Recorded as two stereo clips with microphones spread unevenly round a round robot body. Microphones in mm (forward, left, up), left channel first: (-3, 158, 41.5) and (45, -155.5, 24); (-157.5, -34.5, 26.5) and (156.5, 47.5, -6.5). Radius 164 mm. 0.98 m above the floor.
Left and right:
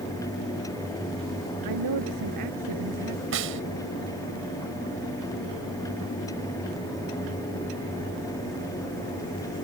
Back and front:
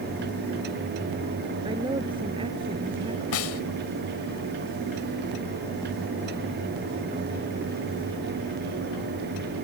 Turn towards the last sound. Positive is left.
turn(degrees=-135)